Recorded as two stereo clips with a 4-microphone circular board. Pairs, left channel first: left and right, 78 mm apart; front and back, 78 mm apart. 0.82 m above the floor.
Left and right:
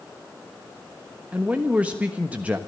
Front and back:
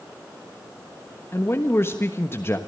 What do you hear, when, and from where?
1.3 s a man speaking: 30° right, 1.2 m